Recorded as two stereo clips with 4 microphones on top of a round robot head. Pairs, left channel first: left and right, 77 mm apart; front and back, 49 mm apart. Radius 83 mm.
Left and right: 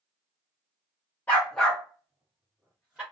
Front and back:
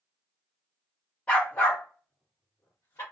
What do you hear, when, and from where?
1.3 s a dog barking: 40° left, 0.7 m; by 3.0 s 5° right, 1.6 m